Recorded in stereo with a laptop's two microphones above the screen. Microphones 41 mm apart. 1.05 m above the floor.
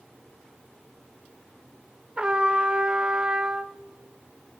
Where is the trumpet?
25° right (ahead or behind), 0.8 m.